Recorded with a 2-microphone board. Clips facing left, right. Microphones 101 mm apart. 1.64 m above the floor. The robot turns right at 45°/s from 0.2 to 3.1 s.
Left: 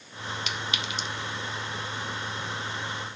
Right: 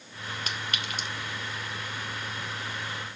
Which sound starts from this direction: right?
A clink, at 0.5 s.